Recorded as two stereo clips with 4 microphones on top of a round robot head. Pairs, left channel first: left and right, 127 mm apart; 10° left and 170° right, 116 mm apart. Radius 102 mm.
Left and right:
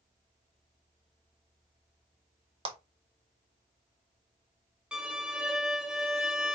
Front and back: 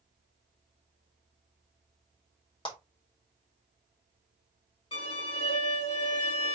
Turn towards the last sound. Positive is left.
turn(degrees=-15)